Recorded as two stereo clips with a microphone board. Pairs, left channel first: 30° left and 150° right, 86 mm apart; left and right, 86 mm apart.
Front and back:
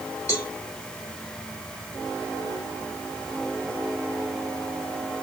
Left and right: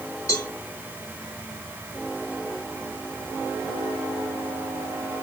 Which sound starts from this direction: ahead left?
A cowbell, at 0.3 s.